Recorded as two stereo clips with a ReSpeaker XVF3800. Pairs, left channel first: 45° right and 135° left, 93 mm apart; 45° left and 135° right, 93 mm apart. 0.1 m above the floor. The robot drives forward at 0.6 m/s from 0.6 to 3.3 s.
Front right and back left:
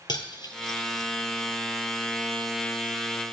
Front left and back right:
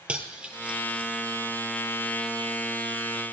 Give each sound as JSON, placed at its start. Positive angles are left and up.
{"t": 0.1, "sound": "cutlery clinking", "azimuth_deg": -60, "distance_m": 1.5}